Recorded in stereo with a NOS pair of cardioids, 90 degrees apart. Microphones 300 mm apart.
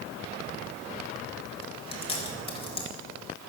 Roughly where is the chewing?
Ahead.